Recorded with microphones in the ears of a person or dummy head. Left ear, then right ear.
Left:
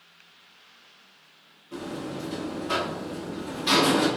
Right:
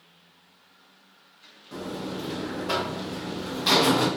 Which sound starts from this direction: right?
A buzzer, at 1.7 s.